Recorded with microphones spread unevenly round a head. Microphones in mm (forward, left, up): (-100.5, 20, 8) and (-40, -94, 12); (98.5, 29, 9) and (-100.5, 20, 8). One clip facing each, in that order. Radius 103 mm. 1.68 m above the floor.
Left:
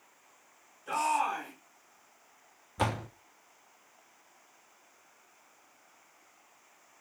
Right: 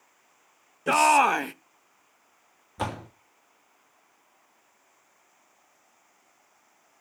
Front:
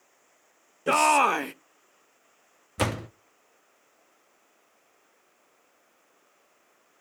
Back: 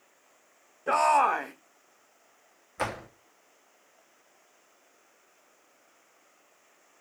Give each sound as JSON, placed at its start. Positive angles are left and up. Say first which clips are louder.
{"t": 0.9, "sound": "a shout", "louder": "right 10 dB, front 2 dB", "azimuth_deg": -50, "distance_m": 0.6}
{"t": 2.8, "sound": "a door slam", "louder": "even, front 5 dB", "azimuth_deg": 25, "distance_m": 0.9}